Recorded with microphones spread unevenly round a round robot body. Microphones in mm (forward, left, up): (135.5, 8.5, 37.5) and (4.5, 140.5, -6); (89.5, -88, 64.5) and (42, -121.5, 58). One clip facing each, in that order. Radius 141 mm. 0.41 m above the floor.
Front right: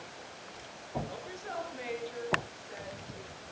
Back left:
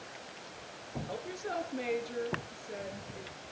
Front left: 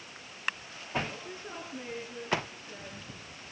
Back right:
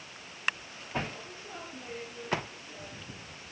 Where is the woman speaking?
95° left, 6.5 m.